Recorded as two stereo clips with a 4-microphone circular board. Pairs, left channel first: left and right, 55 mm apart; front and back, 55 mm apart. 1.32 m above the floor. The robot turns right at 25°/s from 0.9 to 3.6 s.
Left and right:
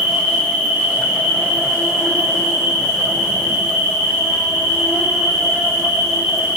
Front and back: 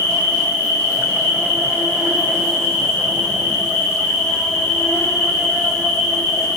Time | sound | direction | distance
0.0 | an insect | 145° right | 2.5 m